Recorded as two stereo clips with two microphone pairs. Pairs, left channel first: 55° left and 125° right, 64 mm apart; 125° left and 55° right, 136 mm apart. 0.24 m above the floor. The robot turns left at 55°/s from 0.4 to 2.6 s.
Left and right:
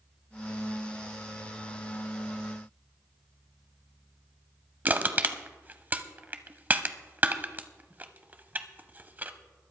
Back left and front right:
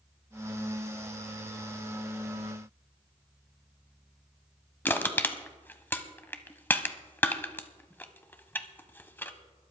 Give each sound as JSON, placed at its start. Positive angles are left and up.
{"t": 4.8, "sound": "crushing", "azimuth_deg": -165, "distance_m": 0.8}